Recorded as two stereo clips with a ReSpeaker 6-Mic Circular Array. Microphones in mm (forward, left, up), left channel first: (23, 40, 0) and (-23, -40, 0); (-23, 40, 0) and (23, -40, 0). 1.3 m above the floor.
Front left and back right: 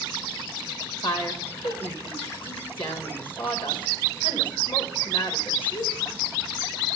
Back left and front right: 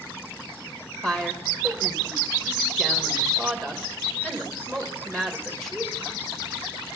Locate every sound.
1.0 s a woman speaking: 35° left, 1.7 m